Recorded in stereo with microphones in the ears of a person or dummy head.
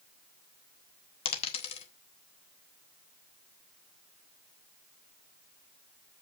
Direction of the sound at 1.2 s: 35° left (ahead or behind).